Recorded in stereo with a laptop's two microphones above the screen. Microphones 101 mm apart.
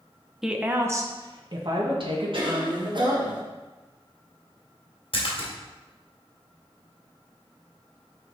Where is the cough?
50° right (ahead or behind), 1.4 m.